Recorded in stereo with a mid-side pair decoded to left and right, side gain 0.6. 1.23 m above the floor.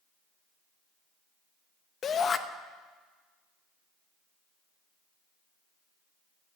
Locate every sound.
2.0 s a shout: 40° left, 0.9 m